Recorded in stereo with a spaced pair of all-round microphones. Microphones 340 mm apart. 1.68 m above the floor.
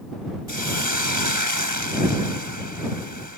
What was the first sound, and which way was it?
A hiss, 70° right (ahead or behind).